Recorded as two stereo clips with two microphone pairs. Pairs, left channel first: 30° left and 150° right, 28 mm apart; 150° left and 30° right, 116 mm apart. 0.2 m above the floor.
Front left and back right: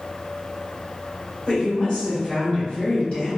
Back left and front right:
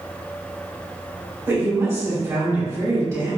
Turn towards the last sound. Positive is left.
turn(degrees=15)